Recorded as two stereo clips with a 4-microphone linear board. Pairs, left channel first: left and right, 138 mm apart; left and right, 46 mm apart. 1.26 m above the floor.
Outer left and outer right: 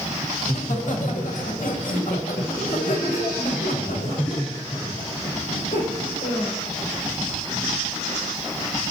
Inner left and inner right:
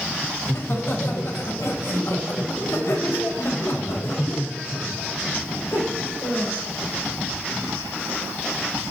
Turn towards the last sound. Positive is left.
turn(degrees=65)  # may be behind; listen again after turning